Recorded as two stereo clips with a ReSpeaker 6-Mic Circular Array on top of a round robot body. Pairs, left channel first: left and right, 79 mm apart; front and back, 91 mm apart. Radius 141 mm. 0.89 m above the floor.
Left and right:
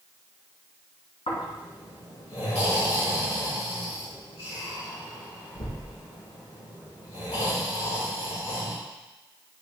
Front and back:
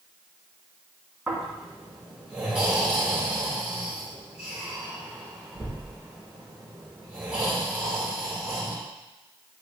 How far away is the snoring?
About 3.5 m.